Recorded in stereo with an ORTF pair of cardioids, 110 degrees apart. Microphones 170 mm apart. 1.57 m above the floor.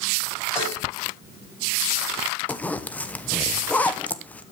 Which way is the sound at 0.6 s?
15° left.